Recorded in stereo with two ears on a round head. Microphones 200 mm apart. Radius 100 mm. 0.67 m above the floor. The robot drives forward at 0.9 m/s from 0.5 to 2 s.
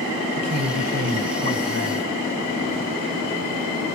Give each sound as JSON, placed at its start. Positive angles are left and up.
{"t": 0.3, "sound": "a woman speaking", "side_deg": -40, "distance_m": 4.0}